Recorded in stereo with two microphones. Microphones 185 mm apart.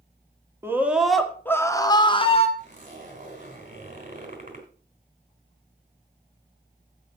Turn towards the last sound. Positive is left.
turn(degrees=-50)  # may be behind; listen again after turning